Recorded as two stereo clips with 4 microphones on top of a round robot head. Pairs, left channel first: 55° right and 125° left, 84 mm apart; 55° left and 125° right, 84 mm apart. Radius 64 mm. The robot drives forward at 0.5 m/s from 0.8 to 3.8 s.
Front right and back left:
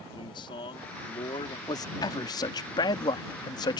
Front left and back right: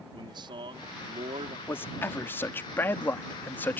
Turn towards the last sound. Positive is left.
turn(degrees=-15)